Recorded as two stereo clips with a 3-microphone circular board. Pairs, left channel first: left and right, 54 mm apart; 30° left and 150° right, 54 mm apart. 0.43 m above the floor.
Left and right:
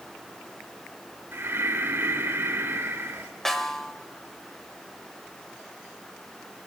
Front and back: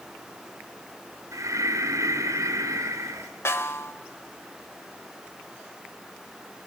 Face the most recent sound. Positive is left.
turn(degrees=5)